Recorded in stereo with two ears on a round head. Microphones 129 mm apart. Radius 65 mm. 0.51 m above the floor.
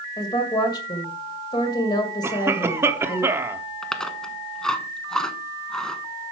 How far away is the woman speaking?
About 2.0 m.